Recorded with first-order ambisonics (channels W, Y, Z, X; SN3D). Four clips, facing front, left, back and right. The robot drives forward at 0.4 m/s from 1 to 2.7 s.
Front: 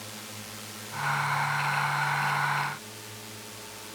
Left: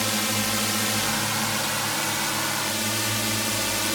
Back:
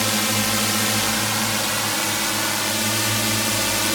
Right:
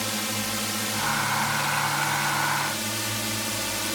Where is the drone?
165° left; by 4.0 s 170° left.